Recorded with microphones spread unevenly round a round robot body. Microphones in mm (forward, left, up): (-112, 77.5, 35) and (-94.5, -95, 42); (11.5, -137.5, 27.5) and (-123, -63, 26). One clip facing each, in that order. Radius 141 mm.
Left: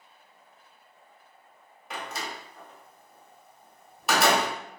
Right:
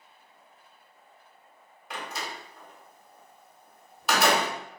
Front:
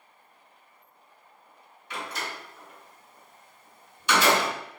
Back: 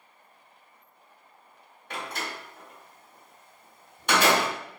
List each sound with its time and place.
1.9 s a door slam: 175° right, 1.3 m